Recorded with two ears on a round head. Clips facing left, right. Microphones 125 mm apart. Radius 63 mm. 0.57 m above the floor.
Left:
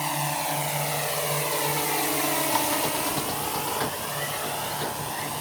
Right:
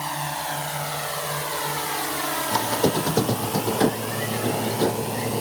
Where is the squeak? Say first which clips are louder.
Right 4 dB; 55° right (ahead or behind).